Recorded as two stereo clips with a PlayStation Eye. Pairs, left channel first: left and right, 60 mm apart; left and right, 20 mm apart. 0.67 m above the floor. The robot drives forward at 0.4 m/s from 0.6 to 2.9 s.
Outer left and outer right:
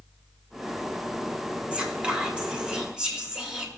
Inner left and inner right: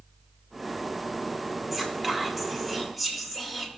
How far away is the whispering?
About 1.5 m.